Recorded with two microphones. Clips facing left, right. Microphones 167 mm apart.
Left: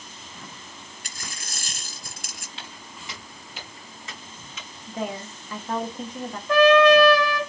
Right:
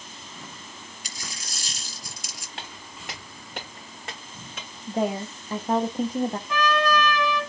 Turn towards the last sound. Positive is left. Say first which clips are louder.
# left 12 dB
turn(degrees=80)